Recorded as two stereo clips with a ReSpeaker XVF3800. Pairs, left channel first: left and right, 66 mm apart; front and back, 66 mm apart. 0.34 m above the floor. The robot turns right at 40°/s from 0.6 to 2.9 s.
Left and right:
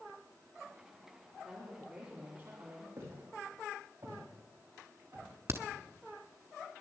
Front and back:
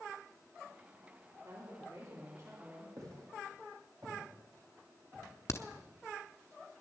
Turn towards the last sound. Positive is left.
turn(degrees=-45)